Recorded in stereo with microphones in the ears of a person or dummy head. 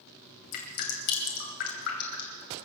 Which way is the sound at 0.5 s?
55° left (ahead or behind).